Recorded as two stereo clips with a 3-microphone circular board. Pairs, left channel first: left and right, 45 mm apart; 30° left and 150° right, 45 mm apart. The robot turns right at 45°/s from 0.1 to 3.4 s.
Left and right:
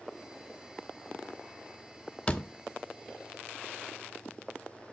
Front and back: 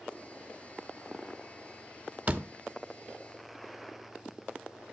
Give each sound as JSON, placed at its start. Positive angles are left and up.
{"t": 2.3, "sound": "a door slam", "azimuth_deg": 155, "distance_m": 1.2}